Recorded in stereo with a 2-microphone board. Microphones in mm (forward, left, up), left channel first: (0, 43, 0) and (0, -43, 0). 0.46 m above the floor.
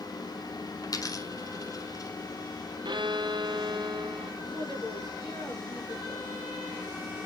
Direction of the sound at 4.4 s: 80° left.